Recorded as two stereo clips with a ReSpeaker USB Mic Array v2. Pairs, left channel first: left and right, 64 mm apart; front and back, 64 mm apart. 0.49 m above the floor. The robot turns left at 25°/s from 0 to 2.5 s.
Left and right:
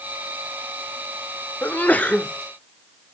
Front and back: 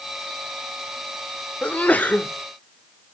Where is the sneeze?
50° left, 0.9 m; by 2.3 s 35° left, 0.9 m.